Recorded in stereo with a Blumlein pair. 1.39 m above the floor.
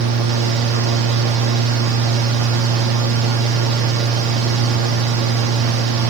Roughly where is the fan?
Ahead right.